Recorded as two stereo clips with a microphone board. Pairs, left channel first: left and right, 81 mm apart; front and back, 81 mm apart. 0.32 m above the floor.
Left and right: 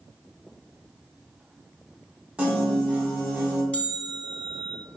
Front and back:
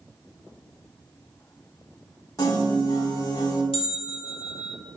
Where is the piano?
20° right, 0.9 m.